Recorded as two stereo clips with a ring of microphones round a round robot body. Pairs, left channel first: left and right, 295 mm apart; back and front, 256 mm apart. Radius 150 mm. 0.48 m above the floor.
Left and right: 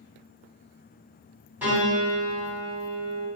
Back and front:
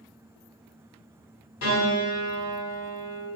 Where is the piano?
175° right, 1.2 m.